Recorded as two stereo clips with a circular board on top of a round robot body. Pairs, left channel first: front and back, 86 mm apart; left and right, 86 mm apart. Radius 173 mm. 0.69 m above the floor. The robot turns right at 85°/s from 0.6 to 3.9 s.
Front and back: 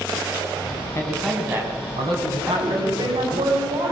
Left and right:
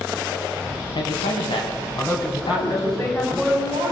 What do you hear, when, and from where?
0.9 s a man speaking: 60° left, 6.5 m; by 3.5 s 85° right, 6.5 m
2.5 s a woman speaking: 110° left, 5.5 m; by 3.9 s 125° right, 5.5 m